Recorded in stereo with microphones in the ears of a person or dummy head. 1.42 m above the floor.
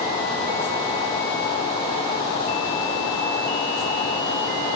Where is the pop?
I don't hear a pop.